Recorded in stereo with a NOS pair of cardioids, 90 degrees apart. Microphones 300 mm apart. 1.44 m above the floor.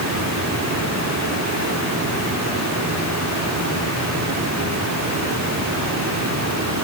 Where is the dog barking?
I don't hear a dog barking.